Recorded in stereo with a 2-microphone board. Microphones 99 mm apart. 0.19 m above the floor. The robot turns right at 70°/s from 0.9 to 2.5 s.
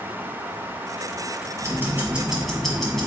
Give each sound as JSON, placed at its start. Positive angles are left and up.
{"t": 1.6, "sound": "ticking", "azimuth_deg": -60, "distance_m": 1.1}